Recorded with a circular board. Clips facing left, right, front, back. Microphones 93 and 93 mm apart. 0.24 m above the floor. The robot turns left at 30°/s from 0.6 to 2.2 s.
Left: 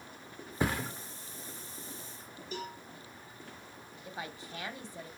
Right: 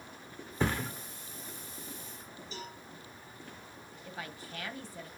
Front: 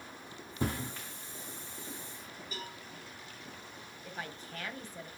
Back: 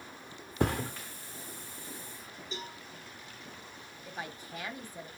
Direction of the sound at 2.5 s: 115° left.